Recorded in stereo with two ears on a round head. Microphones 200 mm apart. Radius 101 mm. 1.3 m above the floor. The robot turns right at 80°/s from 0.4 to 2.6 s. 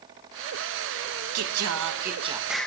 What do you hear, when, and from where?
1.4 s singing: 95° right, 0.8 m; by 2.7 s 5° left, 0.8 m